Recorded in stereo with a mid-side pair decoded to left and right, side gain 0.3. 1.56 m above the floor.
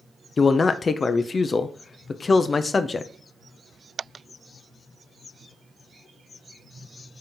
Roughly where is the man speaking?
Ahead left.